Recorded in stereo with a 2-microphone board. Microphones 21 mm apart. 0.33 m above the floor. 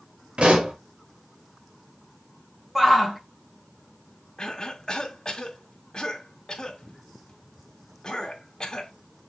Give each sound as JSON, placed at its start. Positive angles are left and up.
{"t": 0.4, "sound": "a pop", "side_deg": -55, "distance_m": 3.0}
{"t": 2.8, "sound": "a shout", "side_deg": -15, "distance_m": 2.5}
{"t": 4.4, "sound": "a cough", "side_deg": 35, "distance_m": 2.0}